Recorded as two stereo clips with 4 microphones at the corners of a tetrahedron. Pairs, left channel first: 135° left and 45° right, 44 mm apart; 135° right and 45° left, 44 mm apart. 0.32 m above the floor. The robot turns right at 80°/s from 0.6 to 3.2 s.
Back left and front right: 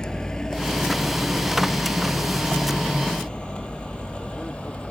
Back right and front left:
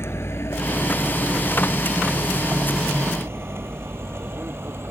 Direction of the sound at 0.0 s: 155° right.